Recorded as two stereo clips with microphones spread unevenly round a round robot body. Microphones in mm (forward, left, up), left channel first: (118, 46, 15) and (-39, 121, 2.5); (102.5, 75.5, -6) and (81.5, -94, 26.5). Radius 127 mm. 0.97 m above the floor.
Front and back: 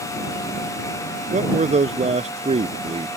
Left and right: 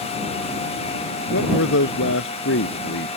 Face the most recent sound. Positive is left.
turn(degrees=100)